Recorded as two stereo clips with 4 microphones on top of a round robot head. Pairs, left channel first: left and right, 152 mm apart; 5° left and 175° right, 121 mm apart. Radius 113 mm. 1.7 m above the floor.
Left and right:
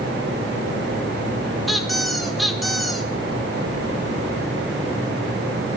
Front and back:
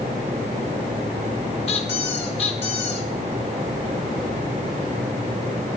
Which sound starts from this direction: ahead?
A squeak, at 1.7 s.